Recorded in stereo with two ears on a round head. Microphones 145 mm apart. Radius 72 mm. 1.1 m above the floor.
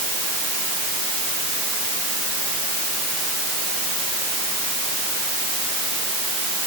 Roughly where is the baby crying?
No baby crying in this recording.